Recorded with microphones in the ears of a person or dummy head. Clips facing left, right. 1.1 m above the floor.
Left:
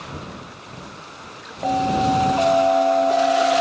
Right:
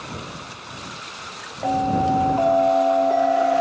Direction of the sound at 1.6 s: Centre (ahead or behind).